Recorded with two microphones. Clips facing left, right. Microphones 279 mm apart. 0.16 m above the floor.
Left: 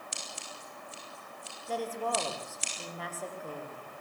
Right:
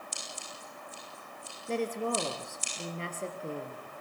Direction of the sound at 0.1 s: 75° left (ahead or behind).